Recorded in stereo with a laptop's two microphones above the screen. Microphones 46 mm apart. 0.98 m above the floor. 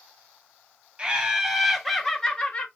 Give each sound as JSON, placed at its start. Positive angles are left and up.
{"t": 1.0, "sound": "laughter", "side_deg": -20, "distance_m": 1.1}